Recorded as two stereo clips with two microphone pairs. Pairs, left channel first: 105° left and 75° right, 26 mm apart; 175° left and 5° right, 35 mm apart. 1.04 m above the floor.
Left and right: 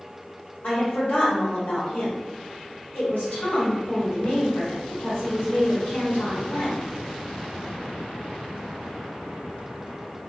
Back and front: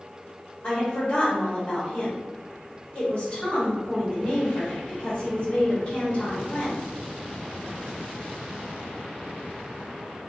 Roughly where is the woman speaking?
Behind left.